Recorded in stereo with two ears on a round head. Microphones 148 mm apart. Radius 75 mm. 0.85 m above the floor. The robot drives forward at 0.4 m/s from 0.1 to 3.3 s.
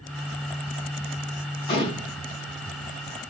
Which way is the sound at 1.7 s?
35° left (ahead or behind).